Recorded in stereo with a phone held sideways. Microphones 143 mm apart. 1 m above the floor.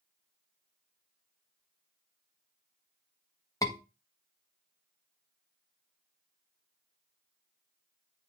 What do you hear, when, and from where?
3.6 s a scream: 25° left (ahead or behind), 1.5 m